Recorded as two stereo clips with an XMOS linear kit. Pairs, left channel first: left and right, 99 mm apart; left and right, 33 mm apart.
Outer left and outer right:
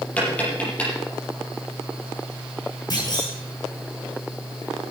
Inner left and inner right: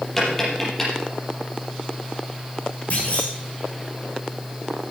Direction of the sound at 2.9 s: 40° left (ahead or behind).